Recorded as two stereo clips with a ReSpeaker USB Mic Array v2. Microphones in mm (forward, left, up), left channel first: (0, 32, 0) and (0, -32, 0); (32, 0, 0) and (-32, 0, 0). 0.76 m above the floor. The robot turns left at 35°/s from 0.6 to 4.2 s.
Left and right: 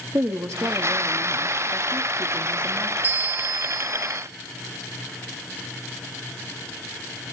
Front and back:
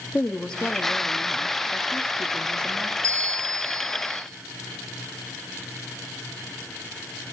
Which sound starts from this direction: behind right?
A bell, at 3.0 s.